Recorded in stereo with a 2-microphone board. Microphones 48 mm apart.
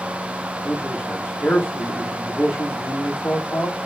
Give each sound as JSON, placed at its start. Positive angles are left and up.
{"t": 0.5, "sound": "a man speaking", "side_deg": 60, "distance_m": 5.5}